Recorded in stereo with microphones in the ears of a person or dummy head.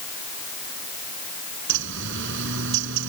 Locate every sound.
1.7 s a bird: 70° right (ahead or behind)